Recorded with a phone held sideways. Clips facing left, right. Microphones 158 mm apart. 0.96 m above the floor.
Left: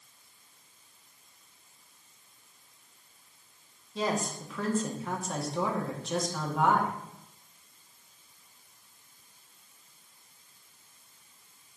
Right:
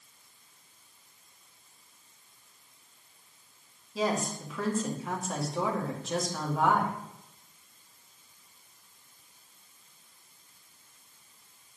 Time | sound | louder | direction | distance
4.0 | a woman speaking | right 1 dB | 5° right (ahead or behind) | 1.8 m